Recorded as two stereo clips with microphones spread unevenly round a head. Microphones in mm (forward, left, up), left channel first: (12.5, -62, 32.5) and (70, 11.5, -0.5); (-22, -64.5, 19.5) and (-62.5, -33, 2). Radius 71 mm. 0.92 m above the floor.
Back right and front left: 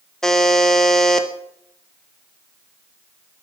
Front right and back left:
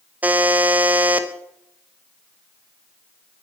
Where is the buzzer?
130° left, 0.9 m.